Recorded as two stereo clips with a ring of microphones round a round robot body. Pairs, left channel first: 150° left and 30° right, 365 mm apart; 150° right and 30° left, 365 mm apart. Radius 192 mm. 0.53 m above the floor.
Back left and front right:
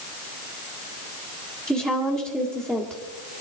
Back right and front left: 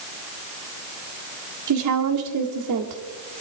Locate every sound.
1.7 s a woman speaking: 50° left, 1.8 m